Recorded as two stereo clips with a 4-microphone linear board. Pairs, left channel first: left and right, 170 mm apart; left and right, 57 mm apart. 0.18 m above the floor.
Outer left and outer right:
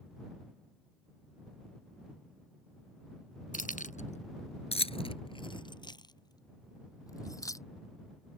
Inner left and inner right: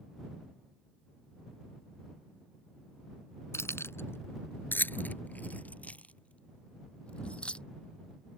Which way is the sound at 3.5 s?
50° left (ahead or behind).